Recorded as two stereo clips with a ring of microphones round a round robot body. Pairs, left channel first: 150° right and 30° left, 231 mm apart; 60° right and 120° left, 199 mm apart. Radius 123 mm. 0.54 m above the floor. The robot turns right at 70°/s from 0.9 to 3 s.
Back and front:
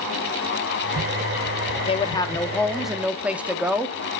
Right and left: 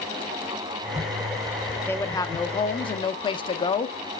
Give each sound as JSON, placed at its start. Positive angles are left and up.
{"t": 1.9, "sound": "a woman speaking", "azimuth_deg": -125, "distance_m": 0.6}